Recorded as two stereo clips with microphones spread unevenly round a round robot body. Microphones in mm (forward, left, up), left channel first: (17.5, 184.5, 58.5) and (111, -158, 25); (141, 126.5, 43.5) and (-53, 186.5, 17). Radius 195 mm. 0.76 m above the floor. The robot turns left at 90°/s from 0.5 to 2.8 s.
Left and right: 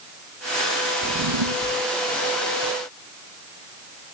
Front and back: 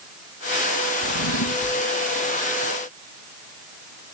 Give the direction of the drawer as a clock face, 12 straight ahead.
12 o'clock.